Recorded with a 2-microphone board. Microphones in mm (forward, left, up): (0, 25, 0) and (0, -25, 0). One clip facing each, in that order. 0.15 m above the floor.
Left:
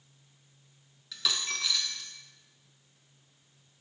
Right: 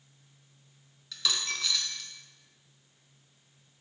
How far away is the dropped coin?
About 0.5 m.